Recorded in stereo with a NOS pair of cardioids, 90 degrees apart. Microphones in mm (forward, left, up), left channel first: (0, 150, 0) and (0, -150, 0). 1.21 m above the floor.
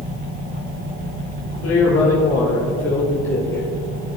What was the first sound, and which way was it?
A man speaking, 45° left.